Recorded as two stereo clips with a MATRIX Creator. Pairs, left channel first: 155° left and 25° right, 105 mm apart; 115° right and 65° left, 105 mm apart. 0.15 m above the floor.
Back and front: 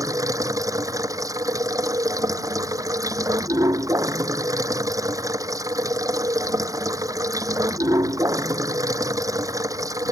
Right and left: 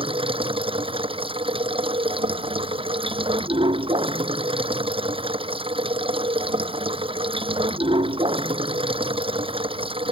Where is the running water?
35° left.